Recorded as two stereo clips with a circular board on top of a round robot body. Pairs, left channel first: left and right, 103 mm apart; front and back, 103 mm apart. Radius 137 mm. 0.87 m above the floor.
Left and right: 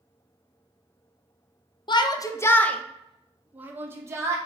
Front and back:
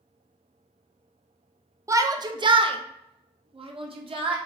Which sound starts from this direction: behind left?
A shout, at 1.9 s.